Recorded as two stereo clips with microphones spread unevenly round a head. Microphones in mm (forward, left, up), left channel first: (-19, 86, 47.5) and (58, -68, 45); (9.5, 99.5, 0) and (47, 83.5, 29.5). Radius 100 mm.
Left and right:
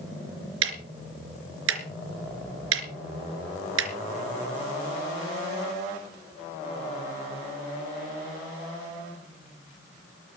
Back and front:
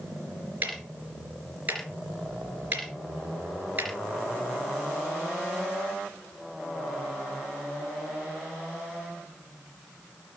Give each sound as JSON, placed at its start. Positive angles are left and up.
{"t": 0.6, "sound": "ticking", "azimuth_deg": -80, "distance_m": 3.5}